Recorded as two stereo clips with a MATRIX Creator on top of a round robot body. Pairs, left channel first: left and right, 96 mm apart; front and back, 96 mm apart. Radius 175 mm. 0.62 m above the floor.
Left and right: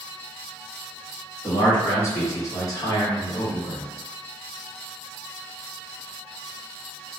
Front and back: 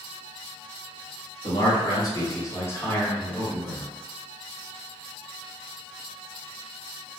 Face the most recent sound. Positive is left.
turn(degrees=100)